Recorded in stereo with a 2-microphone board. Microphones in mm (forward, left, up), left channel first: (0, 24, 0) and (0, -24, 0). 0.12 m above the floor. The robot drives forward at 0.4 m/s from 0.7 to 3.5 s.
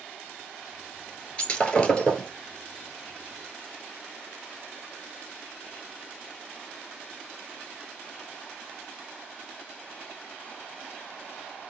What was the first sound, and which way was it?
Breaking glass, 20° left (ahead or behind).